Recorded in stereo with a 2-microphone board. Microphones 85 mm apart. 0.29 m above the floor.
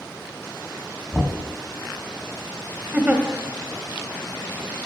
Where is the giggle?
20° right (ahead or behind), 1.4 m.